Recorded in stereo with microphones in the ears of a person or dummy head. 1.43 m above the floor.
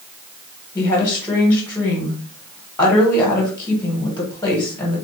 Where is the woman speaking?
15° left (ahead or behind), 1.1 m.